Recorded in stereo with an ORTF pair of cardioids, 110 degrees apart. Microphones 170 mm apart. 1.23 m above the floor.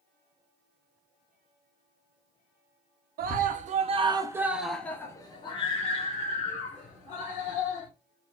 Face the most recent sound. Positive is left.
turn(degrees=55)